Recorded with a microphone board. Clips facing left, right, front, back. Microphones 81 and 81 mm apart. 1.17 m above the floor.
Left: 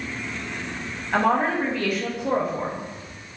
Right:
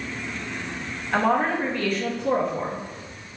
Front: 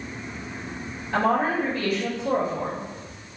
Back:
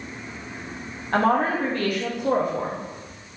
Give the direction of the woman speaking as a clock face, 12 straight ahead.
6 o'clock.